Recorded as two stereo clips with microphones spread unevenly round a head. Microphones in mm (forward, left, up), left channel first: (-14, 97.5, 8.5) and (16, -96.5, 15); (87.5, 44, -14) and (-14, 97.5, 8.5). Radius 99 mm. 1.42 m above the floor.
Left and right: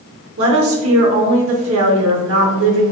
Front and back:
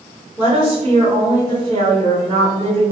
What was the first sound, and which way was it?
A woman speaking, 100° right.